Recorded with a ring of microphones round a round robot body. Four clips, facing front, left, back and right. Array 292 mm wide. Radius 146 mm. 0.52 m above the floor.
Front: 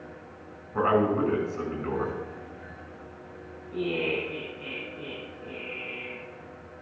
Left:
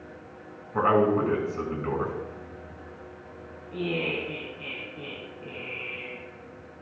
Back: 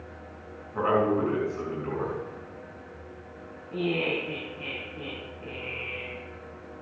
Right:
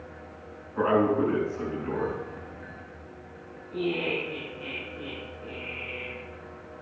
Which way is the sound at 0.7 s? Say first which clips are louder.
Left 1 dB, front 1 dB; 80° left.